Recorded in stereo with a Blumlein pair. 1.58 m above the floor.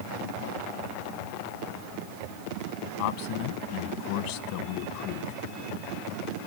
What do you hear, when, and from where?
3.0 s a man speaking: 45° left, 1.4 m